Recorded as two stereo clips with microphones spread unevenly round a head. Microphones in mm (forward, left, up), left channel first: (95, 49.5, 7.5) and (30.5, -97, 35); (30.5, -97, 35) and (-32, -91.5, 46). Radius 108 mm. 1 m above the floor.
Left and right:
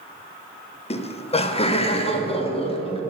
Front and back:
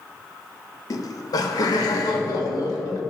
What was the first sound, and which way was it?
Laughter, 15° left.